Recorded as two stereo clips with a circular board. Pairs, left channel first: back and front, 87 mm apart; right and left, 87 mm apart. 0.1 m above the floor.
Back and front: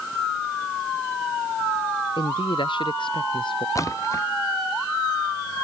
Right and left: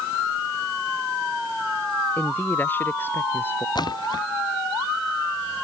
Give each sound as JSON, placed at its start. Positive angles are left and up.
{"t": 2.2, "sound": "a man speaking", "azimuth_deg": -160}
{"t": 3.8, "sound": "a splash", "azimuth_deg": -130}